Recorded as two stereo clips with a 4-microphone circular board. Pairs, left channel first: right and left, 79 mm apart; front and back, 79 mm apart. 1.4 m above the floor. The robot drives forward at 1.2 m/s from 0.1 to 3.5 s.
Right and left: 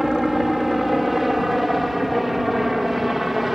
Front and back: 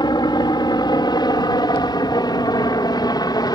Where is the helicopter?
5° left.